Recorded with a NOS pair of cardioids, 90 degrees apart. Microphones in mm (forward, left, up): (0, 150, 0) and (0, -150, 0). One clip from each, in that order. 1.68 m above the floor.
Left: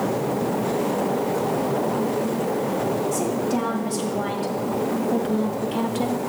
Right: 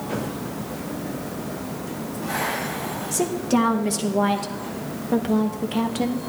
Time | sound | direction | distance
3.1 | a woman speaking | 45° right | 2 m